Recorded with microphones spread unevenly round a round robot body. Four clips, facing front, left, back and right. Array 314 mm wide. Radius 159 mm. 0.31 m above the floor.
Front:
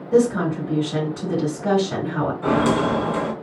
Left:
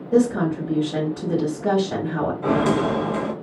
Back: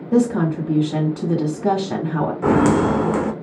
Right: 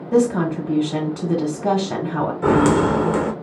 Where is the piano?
I don't hear a piano.